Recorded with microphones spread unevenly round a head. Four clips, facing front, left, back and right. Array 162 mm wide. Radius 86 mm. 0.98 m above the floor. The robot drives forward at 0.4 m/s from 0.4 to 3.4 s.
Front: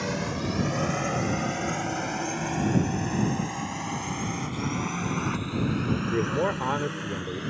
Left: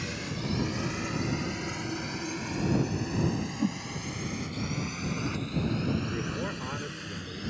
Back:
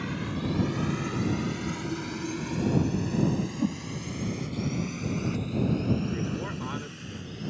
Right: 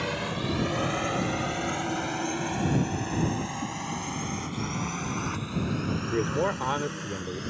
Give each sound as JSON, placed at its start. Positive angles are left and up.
{"t": 0.0, "sound": "a drone", "azimuth_deg": -45}
{"t": 3.6, "sound": "a whoosh", "azimuth_deg": 155}
{"t": 6.1, "sound": "a man speaking", "azimuth_deg": -35}